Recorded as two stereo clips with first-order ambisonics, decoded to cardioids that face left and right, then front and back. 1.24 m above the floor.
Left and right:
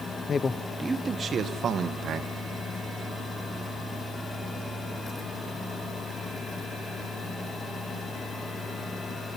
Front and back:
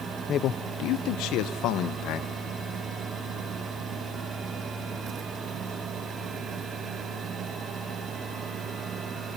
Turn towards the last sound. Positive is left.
turn(degrees=-35)